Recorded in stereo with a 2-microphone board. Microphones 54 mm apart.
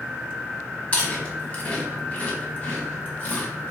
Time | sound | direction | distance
0.9 | chewing | 25° left (ahead or behind) | 1.6 m